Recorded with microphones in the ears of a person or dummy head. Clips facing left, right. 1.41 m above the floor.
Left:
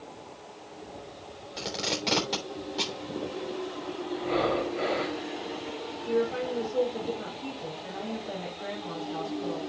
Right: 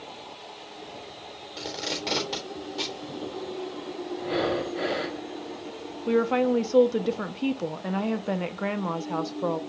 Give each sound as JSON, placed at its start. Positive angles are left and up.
{"t": 1.6, "sound": "tape being pulled", "side_deg": -5, "distance_m": 3.0}
{"t": 4.2, "sound": "breathing", "side_deg": -10, "distance_m": 1.0}
{"t": 6.1, "sound": "a woman speaking", "side_deg": -85, "distance_m": 0.8}